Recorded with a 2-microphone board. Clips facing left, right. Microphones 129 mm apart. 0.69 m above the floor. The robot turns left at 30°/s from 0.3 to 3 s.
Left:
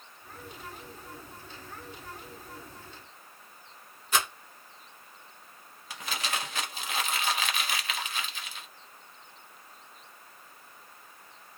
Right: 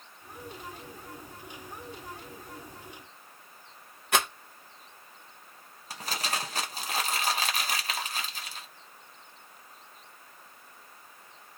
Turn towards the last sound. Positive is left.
turn(degrees=-40)  # may be behind; listen again after turning